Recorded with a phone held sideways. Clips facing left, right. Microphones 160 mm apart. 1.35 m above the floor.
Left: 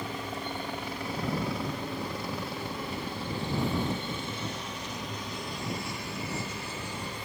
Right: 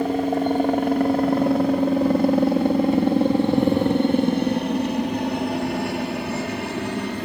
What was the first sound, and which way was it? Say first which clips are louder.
A helicopter: right 16 dB; 55° right (ahead or behind).